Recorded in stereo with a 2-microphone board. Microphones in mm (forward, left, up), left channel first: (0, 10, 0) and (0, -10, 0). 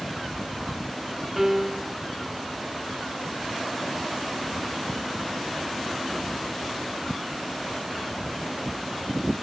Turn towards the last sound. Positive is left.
turn(degrees=-15)  # may be behind; listen again after turning